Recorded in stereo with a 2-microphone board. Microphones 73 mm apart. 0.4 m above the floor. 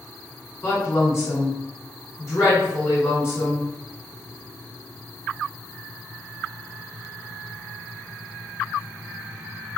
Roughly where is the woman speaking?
Left.